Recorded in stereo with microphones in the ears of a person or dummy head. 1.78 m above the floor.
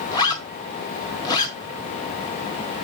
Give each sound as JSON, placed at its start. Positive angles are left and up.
{"t": 0.1, "sound": "a zipper", "side_deg": 20, "distance_m": 1.5}